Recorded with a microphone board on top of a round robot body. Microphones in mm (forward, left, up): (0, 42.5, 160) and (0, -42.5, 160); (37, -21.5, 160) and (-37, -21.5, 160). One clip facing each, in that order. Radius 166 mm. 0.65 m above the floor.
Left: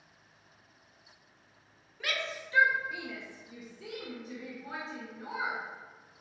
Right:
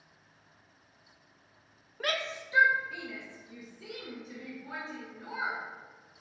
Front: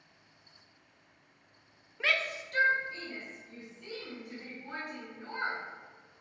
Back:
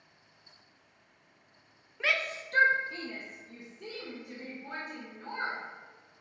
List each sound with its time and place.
2.0 s a shout: 85° right, 0.6 m; by 5.6 s 150° left, 2.5 m